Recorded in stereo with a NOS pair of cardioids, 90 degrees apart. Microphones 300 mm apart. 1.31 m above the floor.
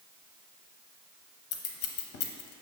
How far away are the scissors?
About 0.5 m.